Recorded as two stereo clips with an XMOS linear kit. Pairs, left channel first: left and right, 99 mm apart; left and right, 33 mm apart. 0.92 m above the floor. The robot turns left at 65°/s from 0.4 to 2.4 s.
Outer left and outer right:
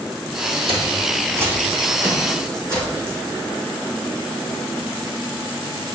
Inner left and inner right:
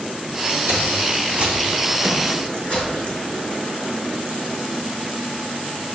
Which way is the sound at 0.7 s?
65° right (ahead or behind).